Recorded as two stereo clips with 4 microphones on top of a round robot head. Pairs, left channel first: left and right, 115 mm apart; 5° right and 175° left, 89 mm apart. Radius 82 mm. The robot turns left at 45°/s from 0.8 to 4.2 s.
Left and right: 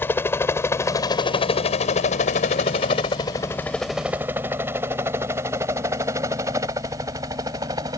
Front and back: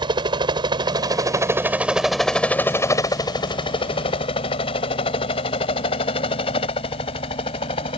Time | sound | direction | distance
0.0 | a helicopter | 160° left | ?